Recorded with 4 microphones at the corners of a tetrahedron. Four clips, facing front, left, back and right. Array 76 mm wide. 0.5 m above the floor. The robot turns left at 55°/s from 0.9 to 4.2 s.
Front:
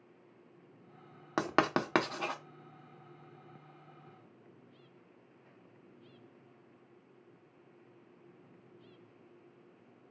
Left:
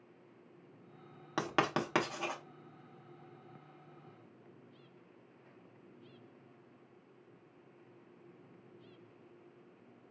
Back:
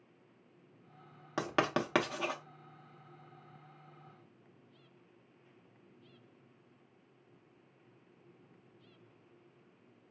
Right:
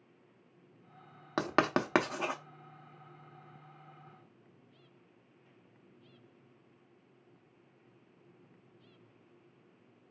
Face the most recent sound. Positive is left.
turn(degrees=175)